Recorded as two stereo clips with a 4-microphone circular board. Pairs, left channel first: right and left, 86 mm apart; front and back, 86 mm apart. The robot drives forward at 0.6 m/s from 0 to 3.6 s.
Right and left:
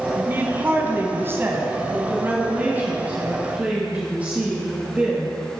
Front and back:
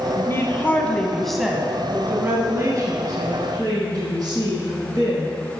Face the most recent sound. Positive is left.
turn(degrees=160)